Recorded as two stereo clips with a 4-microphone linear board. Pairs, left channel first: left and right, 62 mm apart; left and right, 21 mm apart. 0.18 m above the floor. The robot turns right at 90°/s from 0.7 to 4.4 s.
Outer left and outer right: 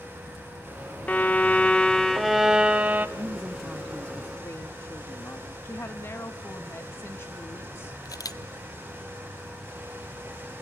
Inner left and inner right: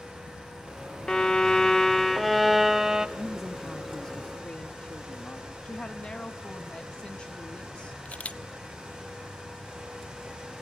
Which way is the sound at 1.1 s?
25° left (ahead or behind).